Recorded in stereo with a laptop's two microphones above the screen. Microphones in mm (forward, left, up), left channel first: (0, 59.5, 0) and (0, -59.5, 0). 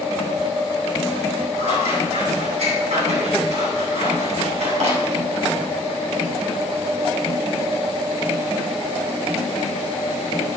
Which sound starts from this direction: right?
Scissors, at 1.6 s.